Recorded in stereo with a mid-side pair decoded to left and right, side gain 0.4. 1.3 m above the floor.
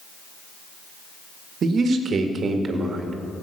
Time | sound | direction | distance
1.6 | a man speaking | 60° right | 1.6 m